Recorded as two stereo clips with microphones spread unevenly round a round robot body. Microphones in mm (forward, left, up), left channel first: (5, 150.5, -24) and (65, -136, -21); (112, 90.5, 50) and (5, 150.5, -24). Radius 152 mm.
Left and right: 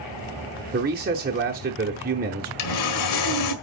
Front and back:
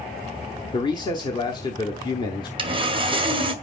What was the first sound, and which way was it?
A man speaking, 120° right.